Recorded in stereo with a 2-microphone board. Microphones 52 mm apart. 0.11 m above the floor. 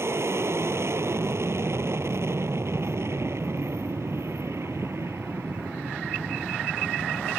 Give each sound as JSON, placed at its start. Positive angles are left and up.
{"t": 0.0, "sound": "an aircraft", "side_deg": -60}